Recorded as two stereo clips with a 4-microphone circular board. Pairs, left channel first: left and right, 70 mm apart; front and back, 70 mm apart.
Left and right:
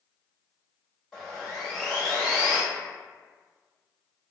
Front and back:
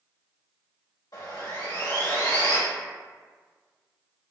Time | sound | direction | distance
1.1 | sawing | 5° left | 1.7 m